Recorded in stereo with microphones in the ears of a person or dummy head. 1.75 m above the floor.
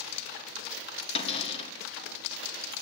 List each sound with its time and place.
1.1 s a cupboard door: 35° left (ahead or behind), 1.3 m